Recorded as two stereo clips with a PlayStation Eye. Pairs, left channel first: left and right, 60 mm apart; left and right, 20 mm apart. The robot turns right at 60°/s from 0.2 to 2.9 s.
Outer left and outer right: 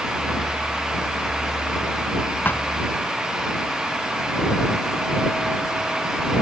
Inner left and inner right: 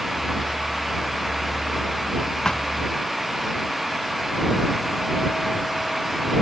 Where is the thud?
30° left (ahead or behind); by 2.7 s 45° left (ahead or behind).